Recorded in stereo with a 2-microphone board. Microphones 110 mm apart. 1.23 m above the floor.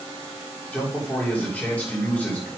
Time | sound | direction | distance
0.7 | a man speaking | 15° left (ahead or behind) | 4 m